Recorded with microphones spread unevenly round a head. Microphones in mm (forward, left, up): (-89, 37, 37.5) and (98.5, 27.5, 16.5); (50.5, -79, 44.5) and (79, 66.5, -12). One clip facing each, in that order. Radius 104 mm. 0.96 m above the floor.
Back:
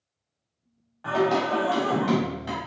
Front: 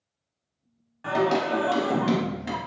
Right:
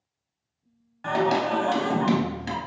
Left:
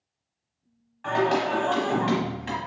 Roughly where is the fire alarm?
No fire alarm in this recording.